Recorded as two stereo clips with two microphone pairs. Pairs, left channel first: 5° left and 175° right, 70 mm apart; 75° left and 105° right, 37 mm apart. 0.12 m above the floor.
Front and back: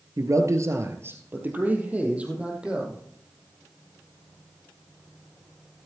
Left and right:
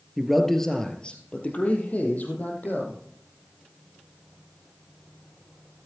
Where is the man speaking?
175° left, 1.9 m; by 3.0 s 105° left, 4.5 m.